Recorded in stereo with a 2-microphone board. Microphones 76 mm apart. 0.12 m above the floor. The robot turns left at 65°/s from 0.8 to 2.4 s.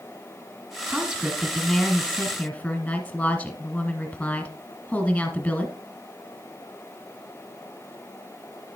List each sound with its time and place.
0.9 s a woman speaking: 10° right (ahead or behind), 1.4 m; by 5.7 s 15° left (ahead or behind), 1.4 m